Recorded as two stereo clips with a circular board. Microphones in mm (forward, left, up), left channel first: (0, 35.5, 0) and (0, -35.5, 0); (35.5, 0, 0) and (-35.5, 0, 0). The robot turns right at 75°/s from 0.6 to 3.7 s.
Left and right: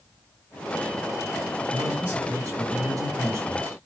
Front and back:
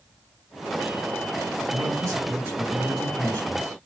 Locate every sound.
1.7 s a man speaking: 175° right, 2.5 m; by 3.8 s 30° right, 2.5 m